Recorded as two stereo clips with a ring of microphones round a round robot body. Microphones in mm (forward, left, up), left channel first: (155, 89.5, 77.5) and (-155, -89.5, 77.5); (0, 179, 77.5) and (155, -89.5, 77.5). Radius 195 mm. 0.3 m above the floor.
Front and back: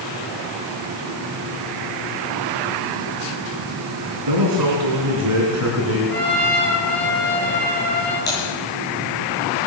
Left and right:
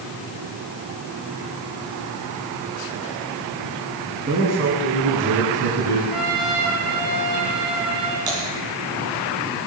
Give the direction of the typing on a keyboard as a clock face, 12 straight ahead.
1 o'clock.